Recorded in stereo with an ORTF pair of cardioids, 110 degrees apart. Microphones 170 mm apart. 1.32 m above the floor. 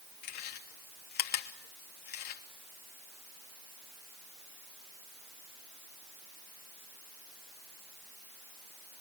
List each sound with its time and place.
0.2 s chewing: 70° left, 3 m